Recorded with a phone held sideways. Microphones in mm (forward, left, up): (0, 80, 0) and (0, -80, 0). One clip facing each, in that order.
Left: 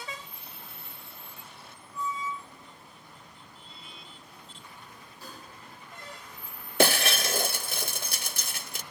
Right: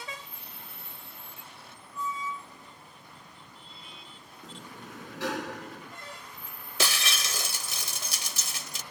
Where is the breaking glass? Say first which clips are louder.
Left 9 dB; 55° left (ahead or behind).